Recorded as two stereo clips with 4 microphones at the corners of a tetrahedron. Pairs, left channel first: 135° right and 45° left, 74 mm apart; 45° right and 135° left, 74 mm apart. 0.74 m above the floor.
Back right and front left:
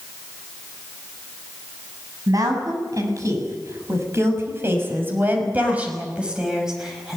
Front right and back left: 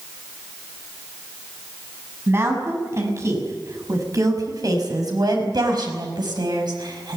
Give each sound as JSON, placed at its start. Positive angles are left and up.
{"t": 2.3, "sound": "a woman speaking", "azimuth_deg": 80, "distance_m": 7.0}